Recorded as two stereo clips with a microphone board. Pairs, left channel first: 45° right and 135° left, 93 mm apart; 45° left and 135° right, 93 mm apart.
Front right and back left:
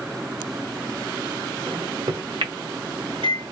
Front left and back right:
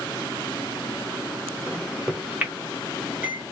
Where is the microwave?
150° left, 1.2 m.